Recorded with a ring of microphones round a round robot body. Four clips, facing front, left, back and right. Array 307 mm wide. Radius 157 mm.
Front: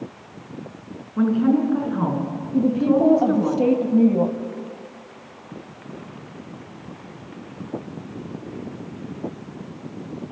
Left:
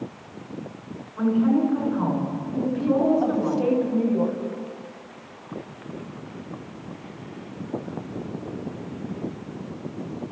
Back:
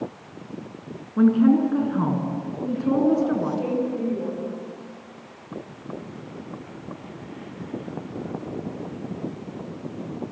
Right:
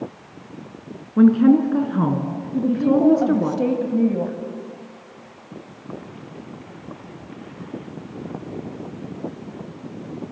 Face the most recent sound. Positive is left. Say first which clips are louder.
# right 5 dB, front 6 dB
turn(degrees=-30)